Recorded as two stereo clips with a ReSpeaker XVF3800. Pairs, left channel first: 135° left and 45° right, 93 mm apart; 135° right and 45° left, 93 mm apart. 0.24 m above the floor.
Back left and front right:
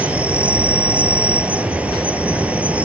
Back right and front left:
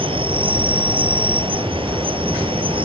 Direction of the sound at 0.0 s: 30° left.